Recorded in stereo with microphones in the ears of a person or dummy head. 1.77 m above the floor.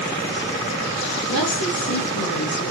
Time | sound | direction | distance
1.3 | a woman speaking | 75° left (ahead or behind) | 3.5 m